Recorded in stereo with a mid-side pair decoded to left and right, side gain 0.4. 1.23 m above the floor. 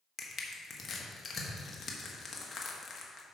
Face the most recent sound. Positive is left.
turn(degrees=45)